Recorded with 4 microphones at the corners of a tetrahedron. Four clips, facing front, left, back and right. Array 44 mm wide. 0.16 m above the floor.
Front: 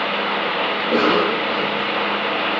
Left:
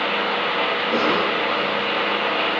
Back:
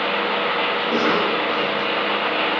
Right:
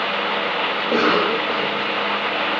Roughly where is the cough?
Ahead right.